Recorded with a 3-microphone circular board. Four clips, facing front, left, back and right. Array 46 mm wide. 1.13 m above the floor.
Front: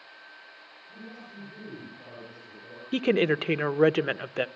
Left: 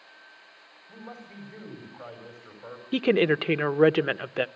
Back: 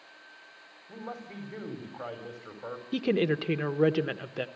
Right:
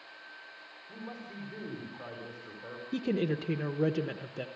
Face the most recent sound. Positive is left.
turn(degrees=60)